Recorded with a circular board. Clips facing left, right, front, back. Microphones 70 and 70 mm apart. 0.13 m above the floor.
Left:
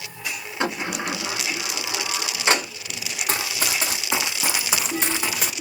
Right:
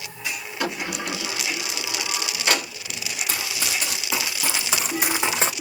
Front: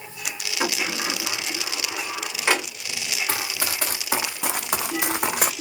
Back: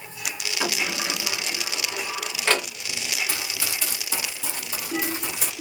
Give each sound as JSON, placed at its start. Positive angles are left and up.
{"t": 0.6, "sound": "a sliding door", "azimuth_deg": 60, "distance_m": 1.1}
{"t": 3.3, "sound": "running footsteps", "azimuth_deg": 50, "distance_m": 1.0}